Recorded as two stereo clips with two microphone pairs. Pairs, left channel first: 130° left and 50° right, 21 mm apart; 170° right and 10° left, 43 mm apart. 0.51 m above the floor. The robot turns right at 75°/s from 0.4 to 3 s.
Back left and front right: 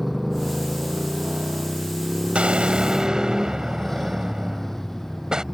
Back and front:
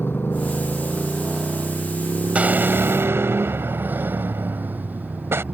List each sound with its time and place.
0.0 s a motorcycle: 140° right; by 5.5 s 55° left
2.4 s an explosion: 45° right; by 5.4 s straight ahead